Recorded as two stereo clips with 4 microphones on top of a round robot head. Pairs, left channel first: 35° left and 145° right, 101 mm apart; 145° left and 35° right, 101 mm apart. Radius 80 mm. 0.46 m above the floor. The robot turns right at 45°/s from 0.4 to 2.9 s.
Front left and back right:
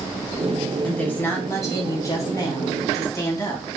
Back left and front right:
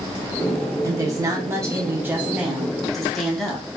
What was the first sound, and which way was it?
A woman speaking, 35° right.